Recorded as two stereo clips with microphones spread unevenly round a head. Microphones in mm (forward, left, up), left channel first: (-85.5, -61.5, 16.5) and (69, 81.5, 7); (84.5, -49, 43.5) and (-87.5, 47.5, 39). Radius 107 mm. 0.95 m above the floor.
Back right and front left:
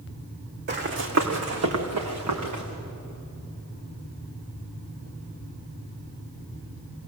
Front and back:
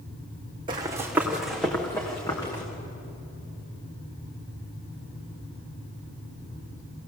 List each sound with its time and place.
0.7 s running footsteps: 85° left, 2.5 m; by 2.6 s 40° left, 4.5 m